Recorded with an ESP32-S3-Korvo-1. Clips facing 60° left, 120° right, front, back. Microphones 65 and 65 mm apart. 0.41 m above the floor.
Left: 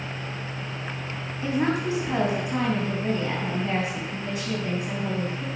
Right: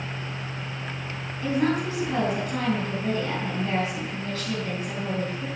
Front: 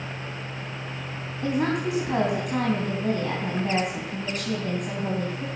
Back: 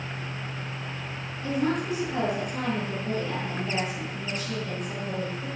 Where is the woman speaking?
15° right, 3.5 m.